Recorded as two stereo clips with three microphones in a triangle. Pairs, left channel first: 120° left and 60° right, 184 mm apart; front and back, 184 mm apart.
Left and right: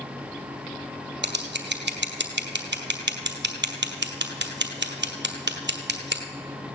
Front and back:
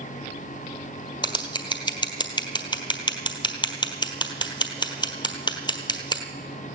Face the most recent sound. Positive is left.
turn(degrees=-65)